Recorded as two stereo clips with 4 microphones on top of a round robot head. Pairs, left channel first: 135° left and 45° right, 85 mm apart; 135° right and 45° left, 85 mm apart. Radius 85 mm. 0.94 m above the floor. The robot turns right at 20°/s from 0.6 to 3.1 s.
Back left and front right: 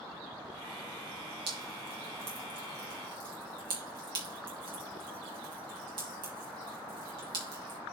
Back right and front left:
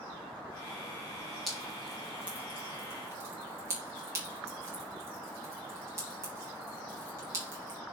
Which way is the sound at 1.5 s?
45° right.